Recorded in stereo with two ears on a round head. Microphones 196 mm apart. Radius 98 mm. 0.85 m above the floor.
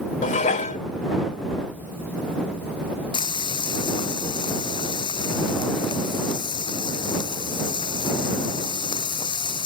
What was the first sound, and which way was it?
Dishes clattering, 35° left (ahead or behind).